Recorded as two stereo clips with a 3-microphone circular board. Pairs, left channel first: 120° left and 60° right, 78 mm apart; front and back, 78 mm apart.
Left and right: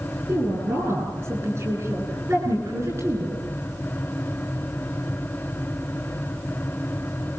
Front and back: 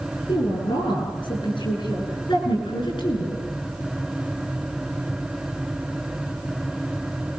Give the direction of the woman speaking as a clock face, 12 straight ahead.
12 o'clock.